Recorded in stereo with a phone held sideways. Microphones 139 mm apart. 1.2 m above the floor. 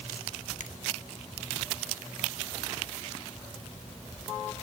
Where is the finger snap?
70° left (ahead or behind), 1.7 m.